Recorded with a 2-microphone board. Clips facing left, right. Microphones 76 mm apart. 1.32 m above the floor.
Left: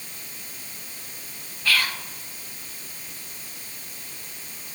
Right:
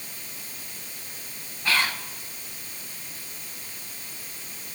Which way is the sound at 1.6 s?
25° right (ahead or behind).